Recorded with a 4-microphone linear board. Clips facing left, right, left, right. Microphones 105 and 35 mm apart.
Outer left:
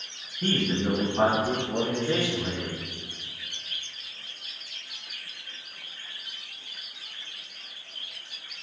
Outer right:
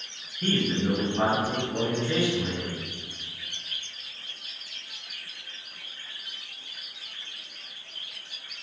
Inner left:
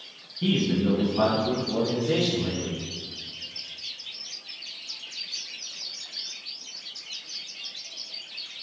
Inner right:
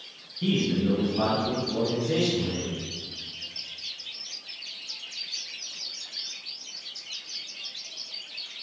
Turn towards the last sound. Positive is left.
turn(degrees=40)  # may be behind; listen again after turning